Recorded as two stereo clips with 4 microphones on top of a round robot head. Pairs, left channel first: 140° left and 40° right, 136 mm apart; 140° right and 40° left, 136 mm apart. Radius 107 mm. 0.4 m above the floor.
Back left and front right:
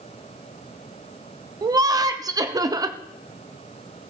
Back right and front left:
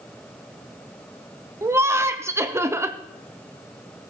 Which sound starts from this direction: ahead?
Laughter, at 1.6 s.